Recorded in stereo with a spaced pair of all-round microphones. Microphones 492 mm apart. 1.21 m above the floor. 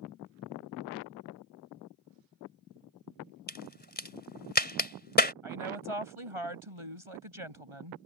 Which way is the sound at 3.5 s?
20° left (ahead or behind).